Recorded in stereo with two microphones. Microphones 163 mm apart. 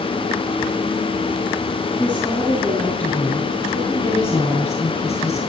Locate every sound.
2.0 s a woman speaking: 5° left (ahead or behind), 5.5 m; by 5.4 s 20° left (ahead or behind), 7 m